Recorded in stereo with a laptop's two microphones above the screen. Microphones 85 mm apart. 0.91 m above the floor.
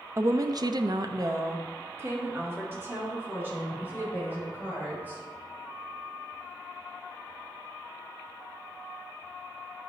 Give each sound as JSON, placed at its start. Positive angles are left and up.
{"t": 0.2, "sound": "a woman speaking", "side_deg": -35, "distance_m": 0.5}